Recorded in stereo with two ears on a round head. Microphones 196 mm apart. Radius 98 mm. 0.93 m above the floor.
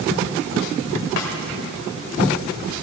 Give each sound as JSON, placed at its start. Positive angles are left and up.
{"t": 1.2, "sound": "a snare drum", "side_deg": 60, "distance_m": 1.8}